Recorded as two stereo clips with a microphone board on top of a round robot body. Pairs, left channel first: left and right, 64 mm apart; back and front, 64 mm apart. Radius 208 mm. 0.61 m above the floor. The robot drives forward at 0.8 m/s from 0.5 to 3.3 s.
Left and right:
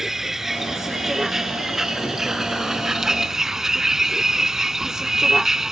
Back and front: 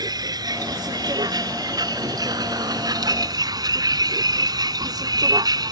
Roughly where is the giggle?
No giggle in this recording.